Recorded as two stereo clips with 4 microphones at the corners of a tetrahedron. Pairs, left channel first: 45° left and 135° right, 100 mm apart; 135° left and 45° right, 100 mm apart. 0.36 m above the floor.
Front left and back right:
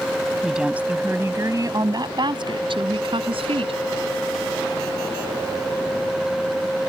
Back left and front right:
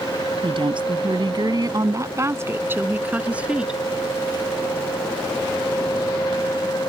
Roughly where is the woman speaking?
Ahead right.